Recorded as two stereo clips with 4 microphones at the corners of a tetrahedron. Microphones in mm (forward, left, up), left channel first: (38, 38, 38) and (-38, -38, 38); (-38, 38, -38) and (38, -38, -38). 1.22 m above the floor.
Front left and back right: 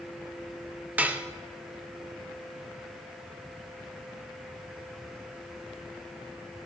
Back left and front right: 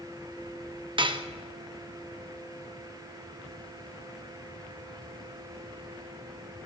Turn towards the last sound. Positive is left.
turn(degrees=-65)